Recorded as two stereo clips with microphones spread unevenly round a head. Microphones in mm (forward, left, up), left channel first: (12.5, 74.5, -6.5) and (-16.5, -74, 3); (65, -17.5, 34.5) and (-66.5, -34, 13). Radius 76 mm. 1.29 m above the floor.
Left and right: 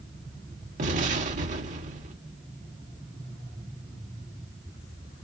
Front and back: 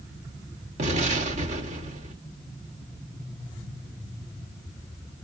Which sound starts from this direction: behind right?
An explosion, at 0.8 s.